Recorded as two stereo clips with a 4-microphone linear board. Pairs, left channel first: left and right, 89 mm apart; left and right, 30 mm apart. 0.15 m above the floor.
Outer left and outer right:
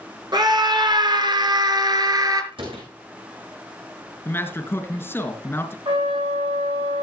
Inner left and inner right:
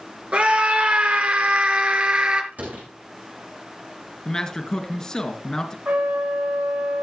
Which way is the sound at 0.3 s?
50° right (ahead or behind).